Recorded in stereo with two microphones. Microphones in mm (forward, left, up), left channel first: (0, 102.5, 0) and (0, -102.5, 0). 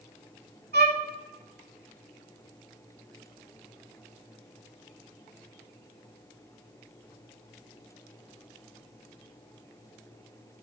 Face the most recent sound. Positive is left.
turn(degrees=-50)  # may be behind; listen again after turning